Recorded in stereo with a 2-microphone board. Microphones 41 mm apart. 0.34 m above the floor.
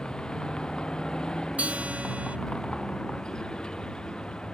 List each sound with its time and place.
0.0 s a vehicle: 20° left (ahead or behind)
1.6 s a guitar: 35° right (ahead or behind)